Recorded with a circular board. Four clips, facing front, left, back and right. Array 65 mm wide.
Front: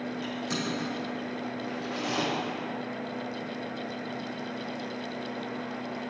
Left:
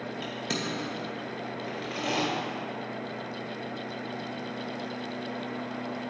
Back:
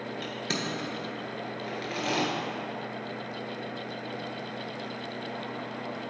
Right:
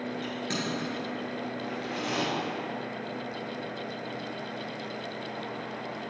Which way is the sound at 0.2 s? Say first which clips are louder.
Left 2 dB, even; 170° left.